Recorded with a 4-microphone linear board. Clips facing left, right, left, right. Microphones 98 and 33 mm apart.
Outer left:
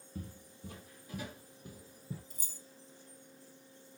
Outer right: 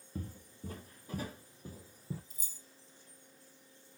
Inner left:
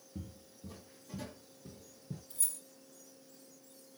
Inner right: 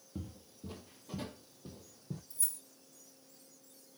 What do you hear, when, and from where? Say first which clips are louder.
0.1 s footsteps: outer right 2 dB, inner right 2 dB; 45° right (ahead or behind), 0.9 m; by 2.2 s 30° right (ahead or behind), 1.1 m
2.3 s keys jangling: outer left 5 dB, inner left 2 dB; 65° left (ahead or behind), 1.2 m